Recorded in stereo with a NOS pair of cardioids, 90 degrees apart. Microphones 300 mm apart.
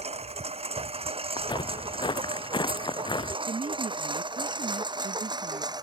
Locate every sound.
0.0 s a lawn mower: 20° right; by 5.8 s 15° right
1.4 s footsteps: 15° left
3.5 s a woman speaking: 25° right